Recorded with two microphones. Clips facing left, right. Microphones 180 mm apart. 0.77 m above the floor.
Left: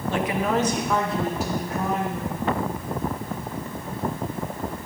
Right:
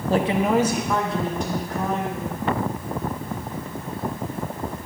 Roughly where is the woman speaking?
Right.